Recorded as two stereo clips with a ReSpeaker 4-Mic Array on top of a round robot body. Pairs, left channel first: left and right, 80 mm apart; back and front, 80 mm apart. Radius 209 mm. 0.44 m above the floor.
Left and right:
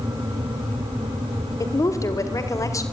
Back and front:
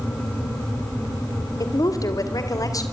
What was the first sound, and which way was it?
A woman speaking, 140° left.